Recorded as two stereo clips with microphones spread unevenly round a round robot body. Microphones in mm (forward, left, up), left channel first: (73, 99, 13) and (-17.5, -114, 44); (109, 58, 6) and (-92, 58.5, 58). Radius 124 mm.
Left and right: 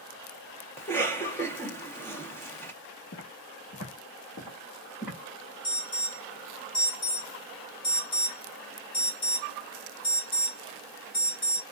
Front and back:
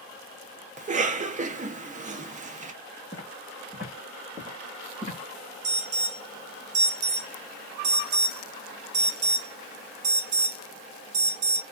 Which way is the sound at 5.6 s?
135° left.